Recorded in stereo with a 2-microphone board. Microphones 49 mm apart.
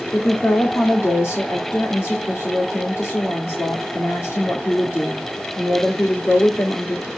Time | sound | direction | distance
0.1 | a woman speaking | 55° left (ahead or behind) | 1.8 m